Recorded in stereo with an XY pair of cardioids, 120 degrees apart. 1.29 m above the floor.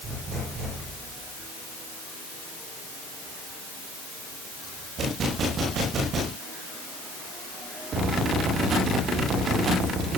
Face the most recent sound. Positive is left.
No sound to turn to.